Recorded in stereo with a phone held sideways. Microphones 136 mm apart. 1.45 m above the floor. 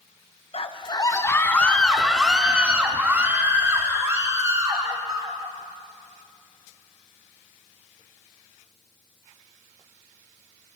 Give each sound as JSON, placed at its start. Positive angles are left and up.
{"t": 0.5, "sound": "a scream", "side_deg": 45, "distance_m": 1.2}